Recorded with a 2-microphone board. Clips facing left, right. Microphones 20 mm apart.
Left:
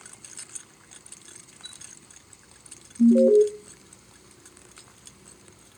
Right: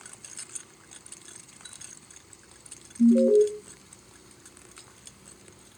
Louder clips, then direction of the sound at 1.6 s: Left 5 dB; 85° left.